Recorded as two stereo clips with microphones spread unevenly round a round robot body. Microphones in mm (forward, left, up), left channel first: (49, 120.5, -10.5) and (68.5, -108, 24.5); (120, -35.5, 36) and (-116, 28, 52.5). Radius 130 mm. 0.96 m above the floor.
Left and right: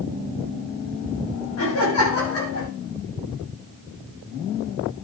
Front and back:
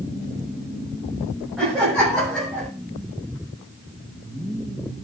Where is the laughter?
75° left, 8 m.